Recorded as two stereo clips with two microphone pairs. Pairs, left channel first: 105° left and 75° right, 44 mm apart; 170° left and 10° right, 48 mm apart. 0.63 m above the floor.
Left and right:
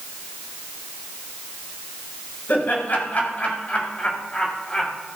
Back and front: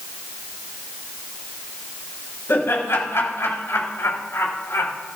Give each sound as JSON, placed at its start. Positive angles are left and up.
{"t": 2.5, "sound": "laughter", "azimuth_deg": 145, "distance_m": 5.0}